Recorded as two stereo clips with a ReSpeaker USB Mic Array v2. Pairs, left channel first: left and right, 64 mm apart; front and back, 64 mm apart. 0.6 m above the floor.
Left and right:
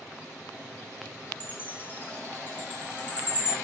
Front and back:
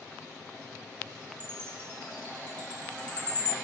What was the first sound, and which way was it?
A chime, 55° left.